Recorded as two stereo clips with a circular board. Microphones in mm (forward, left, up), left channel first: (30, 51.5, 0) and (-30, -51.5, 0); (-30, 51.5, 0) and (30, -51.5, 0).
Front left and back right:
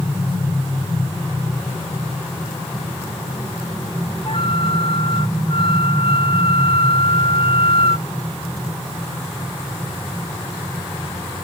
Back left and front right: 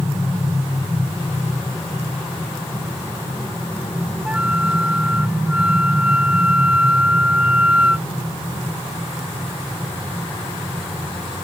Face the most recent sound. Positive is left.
turn(degrees=20)